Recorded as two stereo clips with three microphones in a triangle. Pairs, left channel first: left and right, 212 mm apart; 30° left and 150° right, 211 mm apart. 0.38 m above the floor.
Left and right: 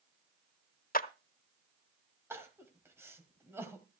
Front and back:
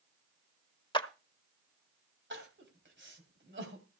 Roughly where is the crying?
Behind.